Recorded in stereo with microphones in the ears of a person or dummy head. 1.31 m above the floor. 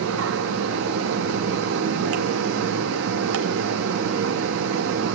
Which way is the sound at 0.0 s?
70° right (ahead or behind).